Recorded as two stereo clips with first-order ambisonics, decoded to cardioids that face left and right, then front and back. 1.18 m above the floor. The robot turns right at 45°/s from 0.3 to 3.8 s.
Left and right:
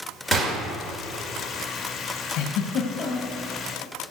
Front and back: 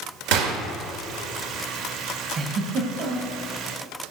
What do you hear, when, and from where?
0.3 s a gunshot: 175° left, 1.6 m; by 0.6 s 170° right, 1.6 m
2.4 s a giggle: 120° left, 2.5 m; by 3.4 s 165° left, 2.5 m